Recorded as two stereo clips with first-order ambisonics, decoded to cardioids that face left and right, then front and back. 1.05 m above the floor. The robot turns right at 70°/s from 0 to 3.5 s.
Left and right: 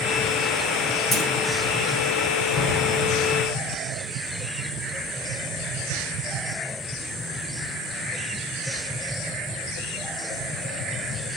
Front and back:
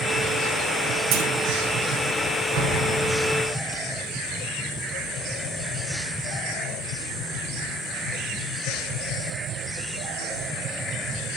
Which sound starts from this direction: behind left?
A clunk, at 1.1 s.